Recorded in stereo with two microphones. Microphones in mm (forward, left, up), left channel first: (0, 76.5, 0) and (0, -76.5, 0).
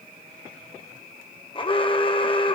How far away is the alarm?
About 1.8 m.